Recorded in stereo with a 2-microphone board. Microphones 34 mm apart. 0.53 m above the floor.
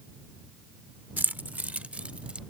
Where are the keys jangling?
60° right (ahead or behind); by 2.4 s 35° right (ahead or behind).